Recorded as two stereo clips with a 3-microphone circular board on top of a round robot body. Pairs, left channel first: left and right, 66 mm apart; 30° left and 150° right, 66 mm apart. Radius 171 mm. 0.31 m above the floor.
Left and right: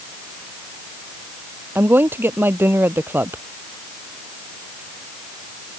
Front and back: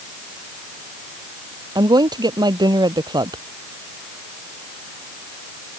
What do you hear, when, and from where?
1.8 s a woman speaking: 150° right